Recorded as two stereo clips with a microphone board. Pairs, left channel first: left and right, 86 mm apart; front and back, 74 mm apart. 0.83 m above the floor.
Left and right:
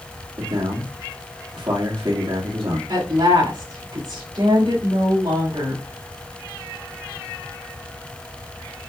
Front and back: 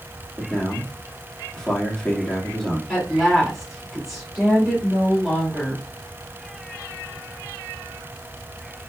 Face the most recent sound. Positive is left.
turn(degrees=-95)